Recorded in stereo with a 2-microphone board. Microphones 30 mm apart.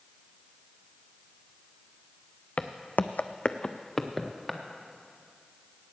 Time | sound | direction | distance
2.6 | footsteps | 50° left (ahead or behind) | 0.8 m